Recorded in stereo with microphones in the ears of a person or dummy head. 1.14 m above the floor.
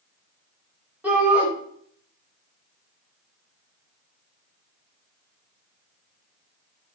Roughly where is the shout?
Centre.